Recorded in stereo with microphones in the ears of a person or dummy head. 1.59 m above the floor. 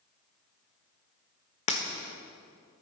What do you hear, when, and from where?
1.7 s breaking glass: 30° left (ahead or behind), 1.2 m